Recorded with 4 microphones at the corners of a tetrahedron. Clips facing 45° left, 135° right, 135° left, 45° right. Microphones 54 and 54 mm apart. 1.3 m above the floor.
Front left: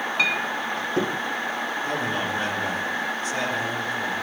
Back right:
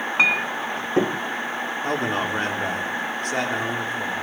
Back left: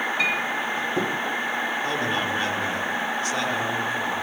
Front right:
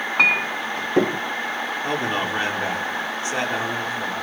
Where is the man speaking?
110° right, 4 m.